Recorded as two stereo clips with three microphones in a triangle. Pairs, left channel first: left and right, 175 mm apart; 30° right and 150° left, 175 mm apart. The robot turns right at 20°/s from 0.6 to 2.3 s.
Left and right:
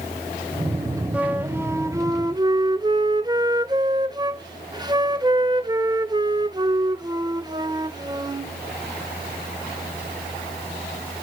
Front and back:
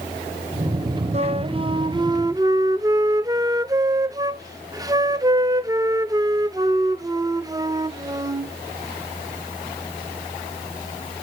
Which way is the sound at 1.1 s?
170° right.